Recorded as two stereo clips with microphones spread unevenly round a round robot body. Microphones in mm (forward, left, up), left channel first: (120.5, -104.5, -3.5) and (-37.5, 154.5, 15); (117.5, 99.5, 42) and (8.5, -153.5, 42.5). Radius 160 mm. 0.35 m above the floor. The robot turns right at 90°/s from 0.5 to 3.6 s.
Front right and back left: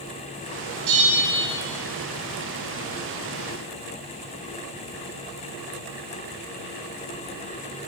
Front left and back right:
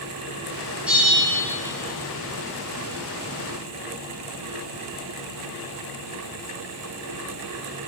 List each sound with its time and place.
0.9 s a bell: 160° left, 3 m; by 1.4 s 150° right, 3 m